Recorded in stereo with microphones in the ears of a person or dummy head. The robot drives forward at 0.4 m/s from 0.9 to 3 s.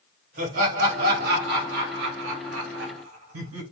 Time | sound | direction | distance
0.4 | laughter | 55° right (ahead or behind) | 1.5 m